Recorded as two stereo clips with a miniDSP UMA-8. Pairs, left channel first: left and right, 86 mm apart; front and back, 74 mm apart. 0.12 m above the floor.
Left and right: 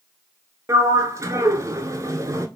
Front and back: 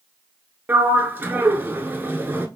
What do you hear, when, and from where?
0.7 s a sliding door: 125° right, 0.5 m